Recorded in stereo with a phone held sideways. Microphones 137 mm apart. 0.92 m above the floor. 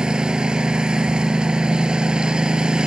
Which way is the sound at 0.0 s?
5° right (ahead or behind).